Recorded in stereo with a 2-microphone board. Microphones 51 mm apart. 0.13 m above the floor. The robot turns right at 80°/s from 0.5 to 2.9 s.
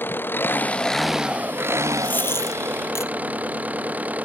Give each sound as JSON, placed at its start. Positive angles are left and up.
{"t": 0.0, "sound": "an engine running", "azimuth_deg": 140}
{"t": 2.0, "sound": "a dropped coin", "side_deg": 35}